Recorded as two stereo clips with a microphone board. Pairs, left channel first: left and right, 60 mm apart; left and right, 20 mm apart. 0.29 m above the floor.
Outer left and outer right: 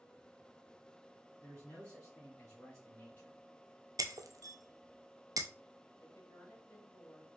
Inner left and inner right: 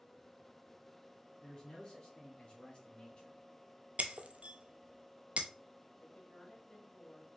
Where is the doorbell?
I don't hear a doorbell.